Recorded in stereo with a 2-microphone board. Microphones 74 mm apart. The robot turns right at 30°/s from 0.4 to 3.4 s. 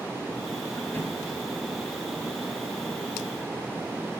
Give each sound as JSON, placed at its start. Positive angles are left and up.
{"t": 0.8, "sound": "a drawer", "side_deg": 35, "distance_m": 0.6}